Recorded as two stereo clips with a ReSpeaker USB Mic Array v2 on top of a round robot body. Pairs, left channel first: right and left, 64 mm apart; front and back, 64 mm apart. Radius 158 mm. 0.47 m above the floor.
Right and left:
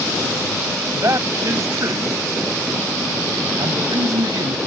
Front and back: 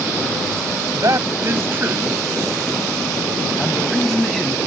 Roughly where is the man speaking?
Behind left.